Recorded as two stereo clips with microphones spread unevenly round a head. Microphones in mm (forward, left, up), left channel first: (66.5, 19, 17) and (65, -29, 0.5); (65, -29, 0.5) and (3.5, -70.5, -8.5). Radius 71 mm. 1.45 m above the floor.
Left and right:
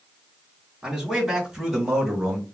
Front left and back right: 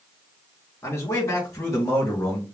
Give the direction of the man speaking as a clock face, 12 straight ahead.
1 o'clock.